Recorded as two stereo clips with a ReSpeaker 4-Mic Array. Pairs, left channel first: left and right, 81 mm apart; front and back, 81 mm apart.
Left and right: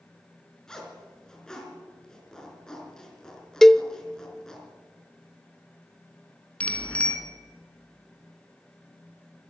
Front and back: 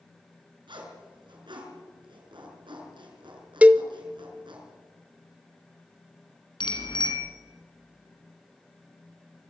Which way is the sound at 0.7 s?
170° left.